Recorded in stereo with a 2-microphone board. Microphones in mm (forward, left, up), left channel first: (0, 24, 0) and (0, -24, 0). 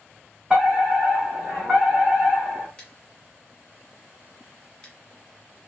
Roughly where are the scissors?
Centre.